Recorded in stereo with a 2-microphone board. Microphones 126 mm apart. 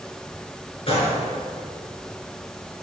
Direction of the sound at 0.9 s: 50° left (ahead or behind).